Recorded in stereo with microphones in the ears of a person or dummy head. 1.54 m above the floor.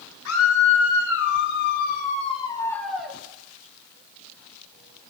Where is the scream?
80° left, 2.5 m; by 3.2 s 5° right (ahead or behind), 1.6 m.